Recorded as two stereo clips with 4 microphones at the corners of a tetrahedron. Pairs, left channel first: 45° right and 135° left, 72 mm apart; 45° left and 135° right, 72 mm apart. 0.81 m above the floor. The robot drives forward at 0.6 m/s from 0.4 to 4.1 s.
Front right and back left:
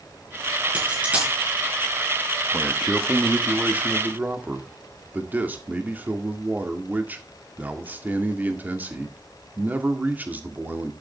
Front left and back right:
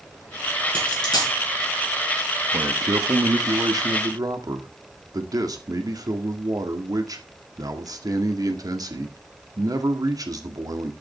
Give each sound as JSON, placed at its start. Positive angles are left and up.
{"t": 0.8, "sound": "a dropped coin", "azimuth_deg": 60, "distance_m": 6.5}
{"t": 2.5, "sound": "a man speaking", "azimuth_deg": -140, "distance_m": 1.1}